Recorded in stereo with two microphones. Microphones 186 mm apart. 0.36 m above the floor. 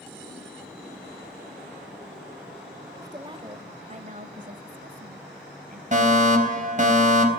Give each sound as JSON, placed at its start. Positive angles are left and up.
{"t": 3.0, "sound": "a woman speaking", "side_deg": -15, "distance_m": 0.9}
{"t": 5.9, "sound": "a fire alarm", "side_deg": -40, "distance_m": 3.5}